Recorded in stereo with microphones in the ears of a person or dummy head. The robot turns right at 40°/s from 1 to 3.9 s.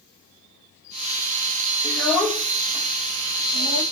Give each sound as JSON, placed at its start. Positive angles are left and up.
{"t": 1.8, "sound": "a child speaking", "side_deg": 20, "distance_m": 0.8}